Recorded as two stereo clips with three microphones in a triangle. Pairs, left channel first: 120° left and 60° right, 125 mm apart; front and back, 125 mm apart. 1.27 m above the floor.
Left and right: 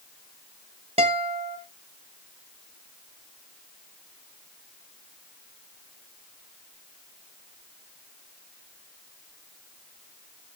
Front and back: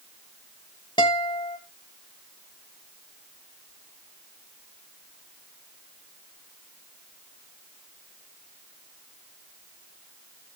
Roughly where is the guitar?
Ahead right.